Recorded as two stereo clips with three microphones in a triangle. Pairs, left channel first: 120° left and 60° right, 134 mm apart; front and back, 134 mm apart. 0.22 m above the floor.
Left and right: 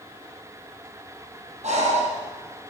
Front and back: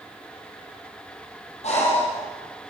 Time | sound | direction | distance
1.6 | breathing | 30° right | 7.5 m